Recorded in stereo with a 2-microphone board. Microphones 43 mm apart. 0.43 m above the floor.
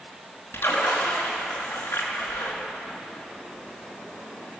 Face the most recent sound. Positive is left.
turn(degrees=80)